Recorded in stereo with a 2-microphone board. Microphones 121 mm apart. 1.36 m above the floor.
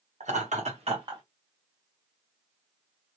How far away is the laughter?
About 1.2 m.